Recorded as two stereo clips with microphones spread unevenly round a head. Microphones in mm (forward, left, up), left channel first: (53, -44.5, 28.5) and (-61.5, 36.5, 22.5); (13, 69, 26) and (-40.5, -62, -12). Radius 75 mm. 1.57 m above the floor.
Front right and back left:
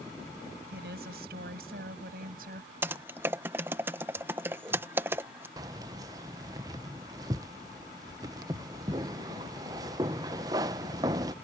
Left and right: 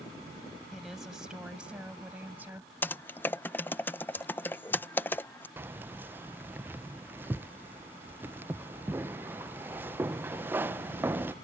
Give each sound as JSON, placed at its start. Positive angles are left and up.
{"t": 0.7, "sound": "a woman speaking", "azimuth_deg": 155}
{"t": 2.8, "sound": "typing on a keyboard", "azimuth_deg": 80}
{"t": 5.6, "sound": "keys jangling", "azimuth_deg": 155}